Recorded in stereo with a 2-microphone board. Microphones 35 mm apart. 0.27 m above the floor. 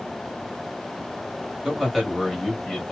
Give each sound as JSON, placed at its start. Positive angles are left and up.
{"t": 1.6, "sound": "a man speaking", "side_deg": -5, "distance_m": 1.5}